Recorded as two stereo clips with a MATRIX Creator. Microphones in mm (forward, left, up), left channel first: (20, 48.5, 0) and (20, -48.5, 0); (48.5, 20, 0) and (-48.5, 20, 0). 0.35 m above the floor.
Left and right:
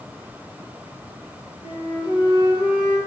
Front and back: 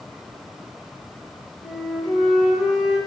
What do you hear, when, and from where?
1.6 s a flute: 95° left, 2 m